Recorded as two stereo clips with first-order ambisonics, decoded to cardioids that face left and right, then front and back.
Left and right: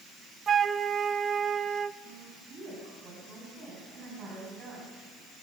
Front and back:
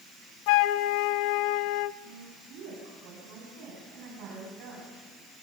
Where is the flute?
20° right, 0.6 m.